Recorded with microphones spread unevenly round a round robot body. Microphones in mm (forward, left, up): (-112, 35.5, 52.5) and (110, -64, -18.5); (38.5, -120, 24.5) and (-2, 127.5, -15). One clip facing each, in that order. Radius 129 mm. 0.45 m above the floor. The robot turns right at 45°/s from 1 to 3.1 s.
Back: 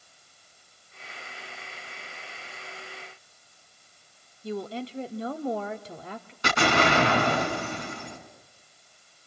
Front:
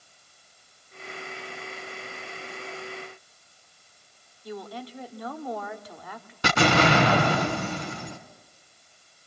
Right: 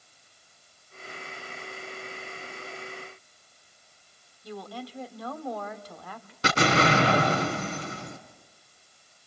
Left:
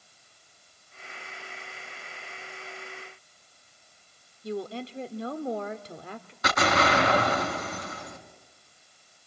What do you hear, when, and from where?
4.4 s a woman speaking: 85° left, 1.1 m
6.4 s an explosion: 20° right, 3 m